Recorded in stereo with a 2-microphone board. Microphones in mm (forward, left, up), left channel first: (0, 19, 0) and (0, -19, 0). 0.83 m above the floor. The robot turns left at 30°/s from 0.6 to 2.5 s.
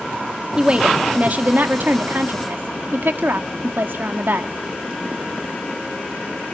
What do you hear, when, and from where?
0.6 s a woman speaking: 30° right, 1.9 m; by 4.5 s 85° right, 1.9 m